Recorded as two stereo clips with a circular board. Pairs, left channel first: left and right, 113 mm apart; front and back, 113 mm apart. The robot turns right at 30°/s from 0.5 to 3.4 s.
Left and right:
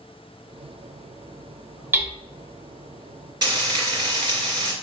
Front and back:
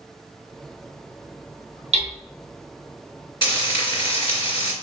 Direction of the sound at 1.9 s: 165° right.